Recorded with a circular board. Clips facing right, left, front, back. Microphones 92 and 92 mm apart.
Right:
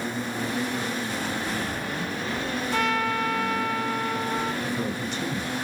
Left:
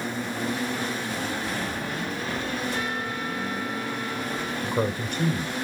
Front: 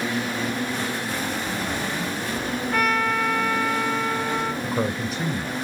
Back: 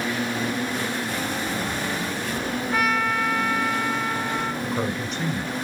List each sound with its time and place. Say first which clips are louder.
2.7 s a trumpet: right 5 dB, front 1 dB; 95° right, 2.5 m
4.6 s a man speaking: left 2 dB, front 1 dB; 85° left, 2 m